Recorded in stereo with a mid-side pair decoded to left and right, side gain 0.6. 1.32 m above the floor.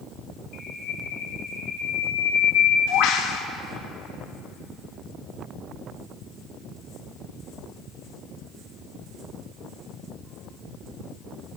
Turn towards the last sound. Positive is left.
turn(degrees=60)